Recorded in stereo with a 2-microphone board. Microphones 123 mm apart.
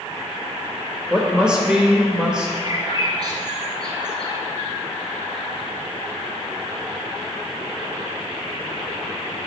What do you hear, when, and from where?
1.1 s a woman speaking: 10° right (ahead or behind), 0.8 m
2.6 s a bird: 35° right (ahead or behind), 1.5 m